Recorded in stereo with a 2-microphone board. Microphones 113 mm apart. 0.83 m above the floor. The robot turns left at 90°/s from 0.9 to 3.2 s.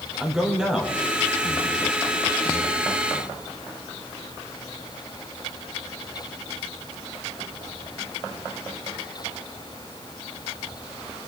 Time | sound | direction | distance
0.2 | a man speaking | 5° right (ahead or behind) | 2.5 m